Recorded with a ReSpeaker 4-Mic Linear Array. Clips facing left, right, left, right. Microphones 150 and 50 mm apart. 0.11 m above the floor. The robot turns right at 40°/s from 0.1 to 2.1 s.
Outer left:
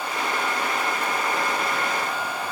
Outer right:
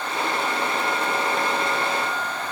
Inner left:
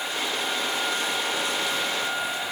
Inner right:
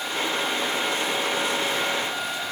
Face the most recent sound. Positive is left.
No sound to turn to.